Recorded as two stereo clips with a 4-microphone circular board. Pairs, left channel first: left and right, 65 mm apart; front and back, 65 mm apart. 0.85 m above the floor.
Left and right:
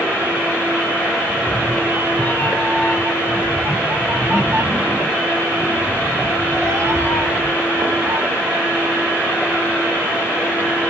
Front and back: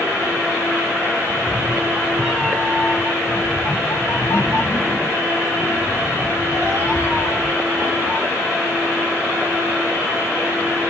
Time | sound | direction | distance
1.3 | a cat meowing | 115° left | 1.0 m